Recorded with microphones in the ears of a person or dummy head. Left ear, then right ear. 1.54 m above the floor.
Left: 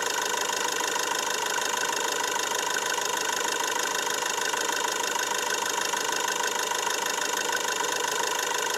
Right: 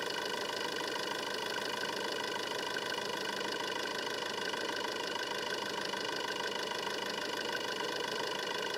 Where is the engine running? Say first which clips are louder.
Left 9 dB; 50° left (ahead or behind).